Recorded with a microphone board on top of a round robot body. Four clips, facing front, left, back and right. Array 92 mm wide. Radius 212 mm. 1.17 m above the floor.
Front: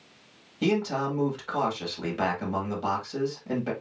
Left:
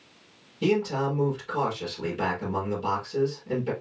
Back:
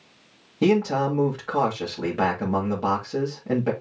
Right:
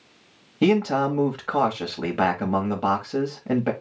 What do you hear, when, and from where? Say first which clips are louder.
0.6 s a man speaking: right 5 dB, back 6 dB; 120° right, 2 m